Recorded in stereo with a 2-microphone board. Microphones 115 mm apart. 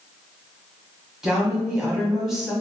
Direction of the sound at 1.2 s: 5° right (ahead or behind).